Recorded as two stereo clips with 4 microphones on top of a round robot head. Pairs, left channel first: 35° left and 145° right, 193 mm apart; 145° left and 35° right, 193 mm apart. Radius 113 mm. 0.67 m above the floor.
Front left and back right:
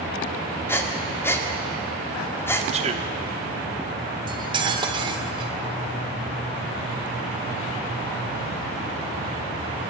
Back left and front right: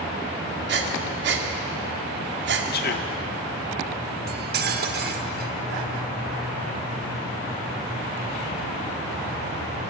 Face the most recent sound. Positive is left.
turn(degrees=-75)